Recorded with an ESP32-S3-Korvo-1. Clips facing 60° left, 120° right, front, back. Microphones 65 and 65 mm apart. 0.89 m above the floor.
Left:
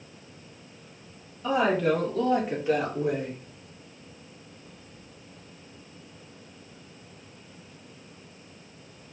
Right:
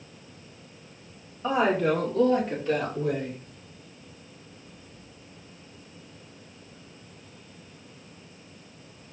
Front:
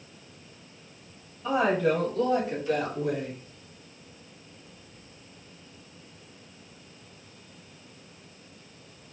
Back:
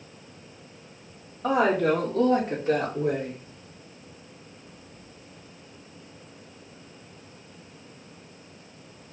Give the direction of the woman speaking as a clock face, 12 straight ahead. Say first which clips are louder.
Even, back 2 dB; 6 o'clock.